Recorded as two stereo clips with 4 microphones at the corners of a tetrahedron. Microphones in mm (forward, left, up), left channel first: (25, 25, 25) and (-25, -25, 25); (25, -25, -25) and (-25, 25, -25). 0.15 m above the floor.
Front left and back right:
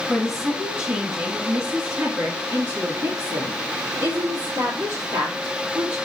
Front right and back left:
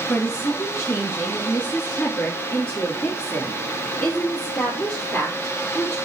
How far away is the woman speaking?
About 2 m.